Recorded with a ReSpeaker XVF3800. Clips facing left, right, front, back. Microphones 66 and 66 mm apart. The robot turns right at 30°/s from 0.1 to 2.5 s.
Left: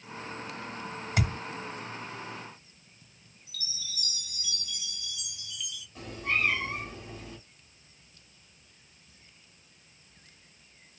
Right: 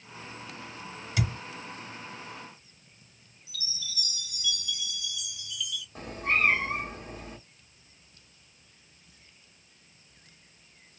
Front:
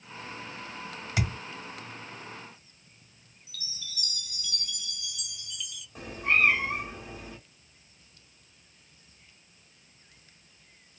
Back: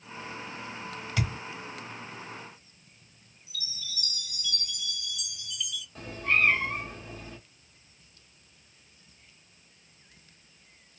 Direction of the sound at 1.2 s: 70° left.